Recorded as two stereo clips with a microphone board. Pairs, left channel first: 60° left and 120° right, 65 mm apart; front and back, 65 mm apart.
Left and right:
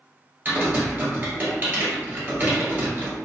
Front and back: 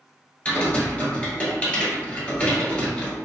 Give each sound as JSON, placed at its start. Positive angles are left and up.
{"t": 0.5, "sound": "typing on a keyboard", "azimuth_deg": -65, "distance_m": 1.1}